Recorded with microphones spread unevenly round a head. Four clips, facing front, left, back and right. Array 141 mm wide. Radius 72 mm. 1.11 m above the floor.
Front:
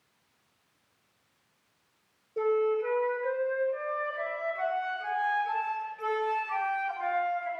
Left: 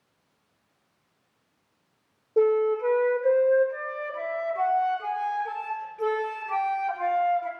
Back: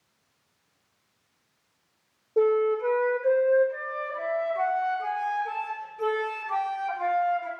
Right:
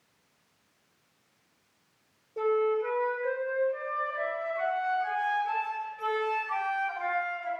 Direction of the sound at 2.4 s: 130° left.